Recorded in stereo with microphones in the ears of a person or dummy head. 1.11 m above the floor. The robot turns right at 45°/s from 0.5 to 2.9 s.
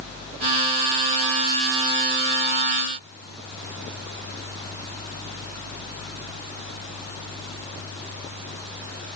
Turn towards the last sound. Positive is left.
No sound to turn to.